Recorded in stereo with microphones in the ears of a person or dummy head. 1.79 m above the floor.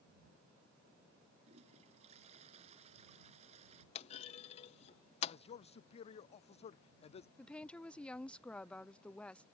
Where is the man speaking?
40° left (ahead or behind).